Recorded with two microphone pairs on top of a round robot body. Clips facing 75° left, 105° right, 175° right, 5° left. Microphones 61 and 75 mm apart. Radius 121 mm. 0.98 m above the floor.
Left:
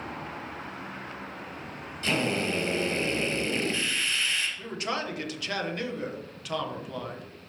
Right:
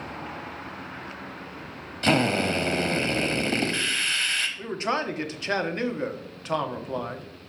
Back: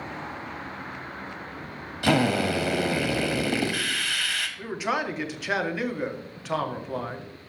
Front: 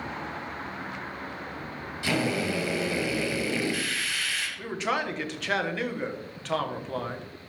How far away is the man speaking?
About 1.2 m.